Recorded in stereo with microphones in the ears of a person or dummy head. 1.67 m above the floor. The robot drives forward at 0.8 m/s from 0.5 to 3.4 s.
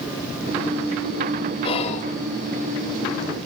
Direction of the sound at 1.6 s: 30° left (ahead or behind).